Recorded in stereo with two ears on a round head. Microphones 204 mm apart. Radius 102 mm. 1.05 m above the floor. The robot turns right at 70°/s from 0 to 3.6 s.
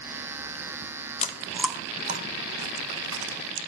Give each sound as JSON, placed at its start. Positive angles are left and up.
{"t": 1.2, "sound": "chewing", "side_deg": 30, "distance_m": 0.6}